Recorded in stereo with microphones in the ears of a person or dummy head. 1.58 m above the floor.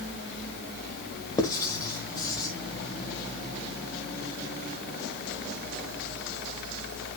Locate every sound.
1.4 s writing: 25° left (ahead or behind), 1.4 m